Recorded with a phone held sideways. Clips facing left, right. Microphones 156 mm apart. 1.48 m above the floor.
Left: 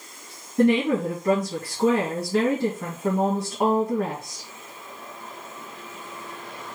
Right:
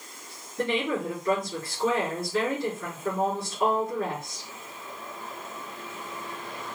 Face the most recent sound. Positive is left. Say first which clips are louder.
# left 8 dB
turn(degrees=85)